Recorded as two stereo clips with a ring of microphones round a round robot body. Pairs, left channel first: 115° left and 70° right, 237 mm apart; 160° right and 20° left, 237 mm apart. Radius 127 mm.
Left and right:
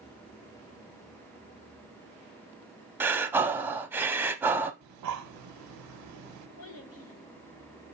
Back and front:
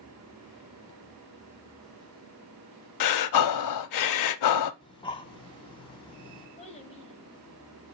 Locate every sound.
3.0 s breathing: 150° right, 0.6 m
4.8 s breathing: 85° right, 0.7 m
6.6 s a child speaking: 140° left, 2 m